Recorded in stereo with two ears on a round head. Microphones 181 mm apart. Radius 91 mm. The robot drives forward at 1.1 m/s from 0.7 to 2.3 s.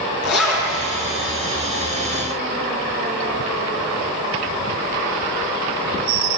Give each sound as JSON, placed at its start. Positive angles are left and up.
{"t": 0.2, "sound": "a zipper", "side_deg": 75, "distance_m": 4.0}